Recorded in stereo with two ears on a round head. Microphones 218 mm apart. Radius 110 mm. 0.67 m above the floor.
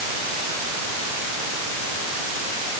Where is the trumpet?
No trumpet in this recording.